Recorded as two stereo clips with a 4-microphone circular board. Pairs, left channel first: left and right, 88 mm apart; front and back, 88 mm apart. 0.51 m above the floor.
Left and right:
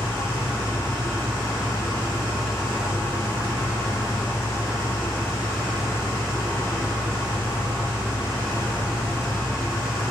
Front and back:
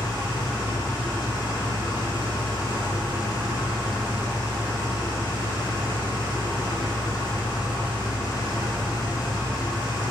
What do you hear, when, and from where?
0.0 s an engine running: 35° left, 1.4 m